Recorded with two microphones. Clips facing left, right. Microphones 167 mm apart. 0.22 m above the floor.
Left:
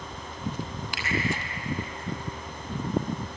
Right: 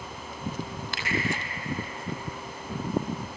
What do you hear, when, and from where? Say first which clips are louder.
0.9 s a finger snap: even; 10° left (ahead or behind), 6.5 m